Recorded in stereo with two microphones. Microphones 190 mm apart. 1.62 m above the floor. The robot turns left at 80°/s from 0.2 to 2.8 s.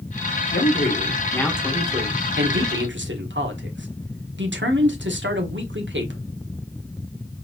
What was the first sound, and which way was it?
A man speaking, 80° left.